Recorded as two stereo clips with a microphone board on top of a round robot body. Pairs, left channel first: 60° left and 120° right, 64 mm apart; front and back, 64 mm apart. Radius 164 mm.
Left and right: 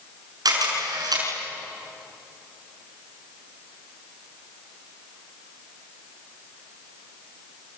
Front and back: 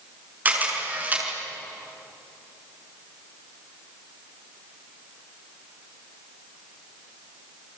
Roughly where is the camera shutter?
Behind right.